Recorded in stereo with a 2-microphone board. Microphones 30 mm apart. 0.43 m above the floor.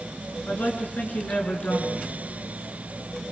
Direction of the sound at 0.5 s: 75° left (ahead or behind).